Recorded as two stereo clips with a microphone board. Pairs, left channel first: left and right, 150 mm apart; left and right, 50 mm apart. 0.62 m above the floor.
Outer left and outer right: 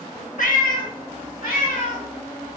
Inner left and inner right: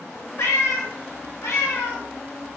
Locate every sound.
0.4 s a cat meowing: 60° left (ahead or behind), 0.6 m